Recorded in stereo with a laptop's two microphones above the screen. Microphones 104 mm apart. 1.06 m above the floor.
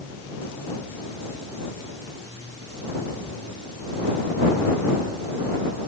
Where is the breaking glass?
No breaking glass in this recording.